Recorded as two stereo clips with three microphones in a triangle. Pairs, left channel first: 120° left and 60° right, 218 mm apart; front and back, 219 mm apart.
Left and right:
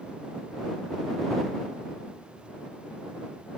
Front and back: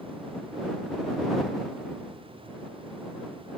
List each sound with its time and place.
Only background noise.